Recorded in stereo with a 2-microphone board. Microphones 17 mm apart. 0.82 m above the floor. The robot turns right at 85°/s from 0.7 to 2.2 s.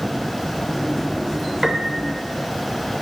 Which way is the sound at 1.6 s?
145° right.